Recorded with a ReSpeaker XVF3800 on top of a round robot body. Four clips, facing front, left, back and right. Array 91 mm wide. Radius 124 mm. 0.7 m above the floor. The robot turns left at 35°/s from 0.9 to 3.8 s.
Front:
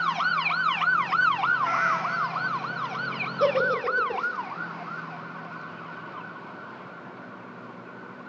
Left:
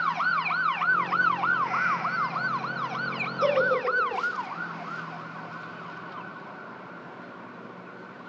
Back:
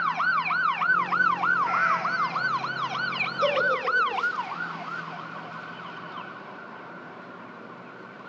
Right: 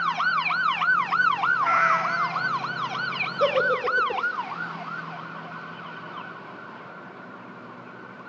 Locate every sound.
1.6 s a cat meowing: 75° right, 1.4 m; by 2.5 s 105° right, 1.4 m
3.4 s a giggle: 50° right, 2.5 m; by 4.2 s 65° right, 2.5 m